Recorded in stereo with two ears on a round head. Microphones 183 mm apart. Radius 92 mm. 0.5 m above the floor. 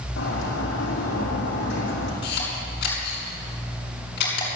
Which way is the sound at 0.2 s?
60° left (ahead or behind).